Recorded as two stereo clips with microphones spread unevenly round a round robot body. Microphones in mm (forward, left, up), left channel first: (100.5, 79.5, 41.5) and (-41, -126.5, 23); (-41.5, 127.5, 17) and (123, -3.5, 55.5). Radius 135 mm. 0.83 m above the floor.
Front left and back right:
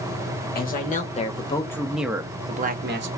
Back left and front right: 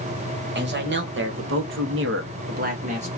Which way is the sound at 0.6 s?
Straight ahead.